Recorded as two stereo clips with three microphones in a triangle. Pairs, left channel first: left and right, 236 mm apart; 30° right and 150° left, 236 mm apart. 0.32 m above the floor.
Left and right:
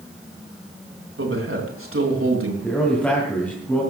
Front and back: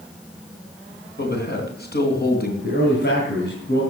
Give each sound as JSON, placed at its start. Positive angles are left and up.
{"t": 1.2, "sound": "a man speaking", "azimuth_deg": -75, "distance_m": 3.5}
{"t": 2.6, "sound": "a man speaking", "azimuth_deg": 5, "distance_m": 3.0}